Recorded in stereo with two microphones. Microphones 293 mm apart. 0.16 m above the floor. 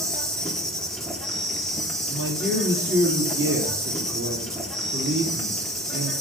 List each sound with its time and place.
0.0 s an insect: centre (ahead or behind), 1.1 m
2.1 s a man speaking: 45° right (ahead or behind), 3 m